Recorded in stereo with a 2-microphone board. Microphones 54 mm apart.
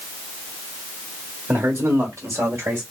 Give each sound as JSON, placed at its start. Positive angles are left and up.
{"t": 1.5, "sound": "a man speaking", "side_deg": -50, "distance_m": 1.4}